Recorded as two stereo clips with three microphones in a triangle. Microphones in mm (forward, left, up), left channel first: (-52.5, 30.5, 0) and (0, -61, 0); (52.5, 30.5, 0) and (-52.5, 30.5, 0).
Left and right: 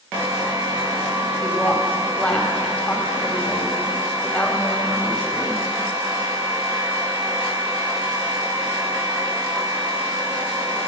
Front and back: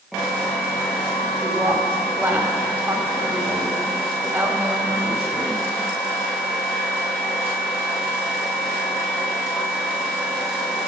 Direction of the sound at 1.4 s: 165° left.